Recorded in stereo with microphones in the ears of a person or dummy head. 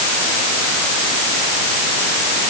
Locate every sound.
Only background noise.